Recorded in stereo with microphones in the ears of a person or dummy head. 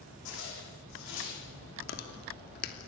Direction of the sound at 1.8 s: 55° left (ahead or behind).